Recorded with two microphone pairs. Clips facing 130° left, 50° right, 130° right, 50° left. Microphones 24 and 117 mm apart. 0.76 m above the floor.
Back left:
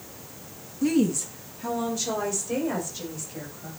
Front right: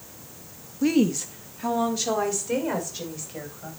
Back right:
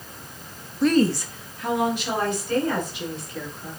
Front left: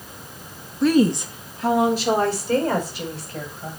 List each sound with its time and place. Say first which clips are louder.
0.8 s a woman speaking: front right 1 dB, front left 2 dB; 55° right, 0.5 m; by 3.7 s straight ahead, 3.5 m